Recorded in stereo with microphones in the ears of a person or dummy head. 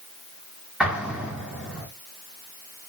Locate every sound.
0.8 s an explosion: centre (ahead or behind), 0.8 m